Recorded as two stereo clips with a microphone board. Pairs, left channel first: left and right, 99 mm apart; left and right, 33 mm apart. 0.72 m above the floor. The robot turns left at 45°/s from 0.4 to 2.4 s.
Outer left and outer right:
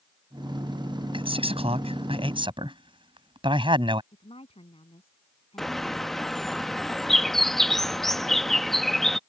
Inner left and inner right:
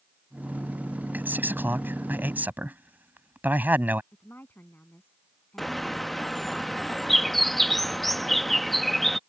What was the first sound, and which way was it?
A man speaking, 65° right.